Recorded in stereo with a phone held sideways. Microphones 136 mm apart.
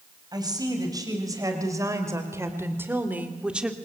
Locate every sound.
0.3 s a woman speaking: 30° right (ahead or behind), 5 m; by 3.8 s 5° right (ahead or behind), 2 m